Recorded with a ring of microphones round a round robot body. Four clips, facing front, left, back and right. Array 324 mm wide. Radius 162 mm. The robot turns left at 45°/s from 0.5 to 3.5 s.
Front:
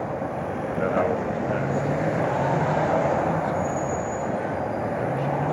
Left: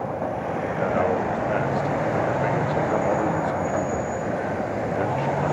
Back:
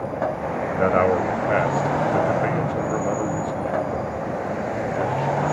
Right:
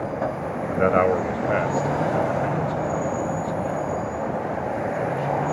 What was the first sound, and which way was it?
A man speaking, 120° right.